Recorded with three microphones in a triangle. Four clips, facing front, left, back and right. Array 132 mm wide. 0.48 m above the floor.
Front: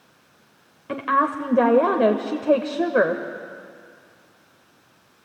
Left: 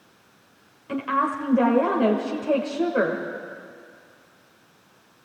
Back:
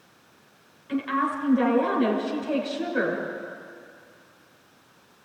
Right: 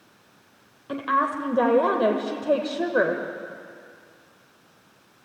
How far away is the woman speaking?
About 1.7 m.